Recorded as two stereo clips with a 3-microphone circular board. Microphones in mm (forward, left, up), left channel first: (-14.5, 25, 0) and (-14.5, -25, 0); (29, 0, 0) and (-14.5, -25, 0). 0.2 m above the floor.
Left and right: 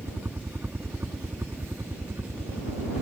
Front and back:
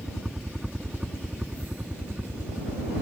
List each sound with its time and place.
0.0 s a helicopter: 70° right; by 3.0 s 85° right